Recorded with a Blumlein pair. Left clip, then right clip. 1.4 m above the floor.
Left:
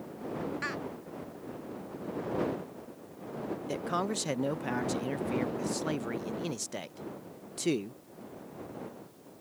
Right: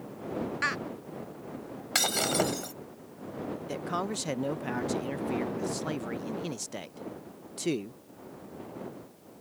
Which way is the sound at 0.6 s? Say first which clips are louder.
Right 8 dB; 20° right.